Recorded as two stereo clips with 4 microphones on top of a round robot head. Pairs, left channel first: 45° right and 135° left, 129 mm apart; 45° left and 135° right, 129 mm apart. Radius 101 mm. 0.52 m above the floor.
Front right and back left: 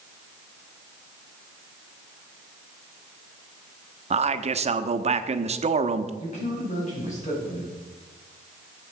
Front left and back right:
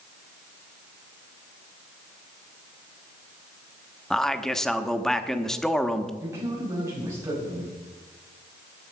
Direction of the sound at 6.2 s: 70° right.